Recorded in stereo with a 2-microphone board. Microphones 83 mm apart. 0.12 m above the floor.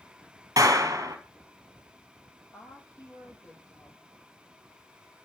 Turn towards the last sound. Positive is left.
turn(degrees=40)  # may be behind; listen again after turning